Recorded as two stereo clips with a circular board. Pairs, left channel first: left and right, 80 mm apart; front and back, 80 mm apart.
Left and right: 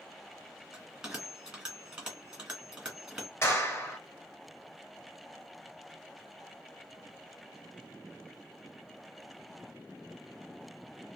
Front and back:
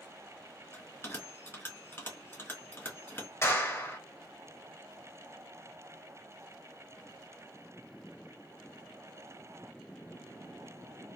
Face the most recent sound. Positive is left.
turn(degrees=45)